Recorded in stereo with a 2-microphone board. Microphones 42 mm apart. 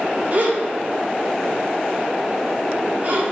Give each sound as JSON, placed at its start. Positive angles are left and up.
{"t": 0.3, "sound": "a gasp", "side_deg": -45, "distance_m": 0.7}